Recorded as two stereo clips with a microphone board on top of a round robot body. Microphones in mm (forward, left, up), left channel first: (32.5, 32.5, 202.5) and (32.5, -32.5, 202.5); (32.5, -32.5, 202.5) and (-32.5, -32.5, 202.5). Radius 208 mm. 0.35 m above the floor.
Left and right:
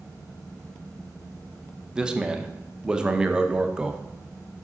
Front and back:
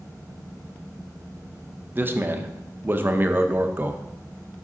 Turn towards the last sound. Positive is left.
turn(degrees=-155)